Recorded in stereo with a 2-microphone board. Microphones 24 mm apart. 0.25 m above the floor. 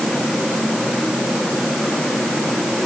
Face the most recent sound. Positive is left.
No sound to turn to.